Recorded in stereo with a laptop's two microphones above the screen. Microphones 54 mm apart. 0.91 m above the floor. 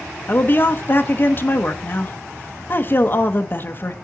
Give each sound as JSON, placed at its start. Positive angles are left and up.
{"t": 0.3, "sound": "a woman speaking", "side_deg": 40, "distance_m": 0.8}